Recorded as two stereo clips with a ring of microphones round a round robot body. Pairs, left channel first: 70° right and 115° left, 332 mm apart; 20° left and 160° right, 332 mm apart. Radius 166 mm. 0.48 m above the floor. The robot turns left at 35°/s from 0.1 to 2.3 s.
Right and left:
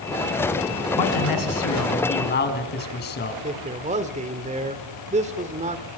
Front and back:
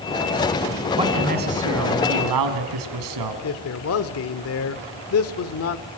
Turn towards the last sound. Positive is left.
turn(degrees=50)